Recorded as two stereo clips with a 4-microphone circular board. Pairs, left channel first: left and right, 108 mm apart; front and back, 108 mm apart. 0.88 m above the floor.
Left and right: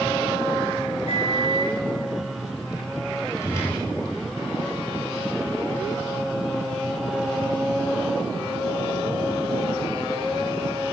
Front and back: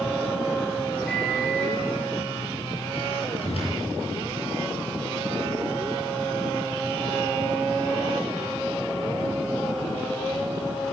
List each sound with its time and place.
1.1 s a microwave: 80° left, 7.5 m
3.4 s a whoosh: 30° left, 9.5 m